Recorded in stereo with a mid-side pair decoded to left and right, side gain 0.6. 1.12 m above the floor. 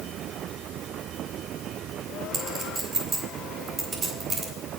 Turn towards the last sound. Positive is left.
turn(degrees=-40)